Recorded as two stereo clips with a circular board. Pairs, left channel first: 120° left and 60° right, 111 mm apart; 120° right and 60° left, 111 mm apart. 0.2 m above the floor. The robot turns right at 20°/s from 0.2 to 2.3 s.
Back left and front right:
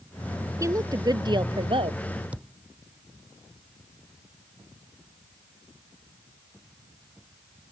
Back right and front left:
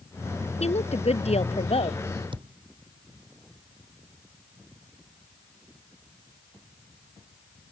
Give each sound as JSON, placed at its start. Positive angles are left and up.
{"t": 0.6, "sound": "a woman speaking", "azimuth_deg": -120}
{"t": 2.3, "sound": "a thud", "azimuth_deg": 20}